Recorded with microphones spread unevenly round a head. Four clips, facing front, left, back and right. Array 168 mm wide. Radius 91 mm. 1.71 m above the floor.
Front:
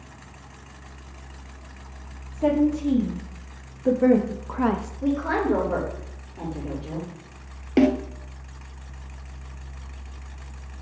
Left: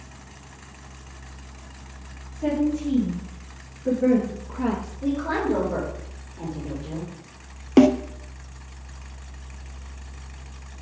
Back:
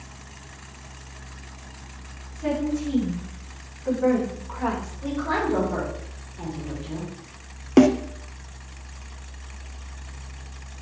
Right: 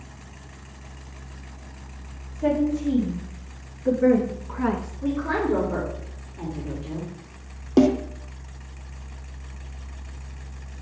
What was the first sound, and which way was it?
A woman speaking, 5° right.